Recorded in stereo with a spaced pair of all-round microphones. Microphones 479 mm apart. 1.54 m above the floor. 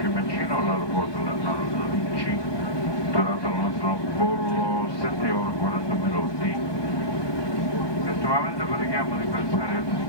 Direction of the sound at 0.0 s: 60° left (ahead or behind).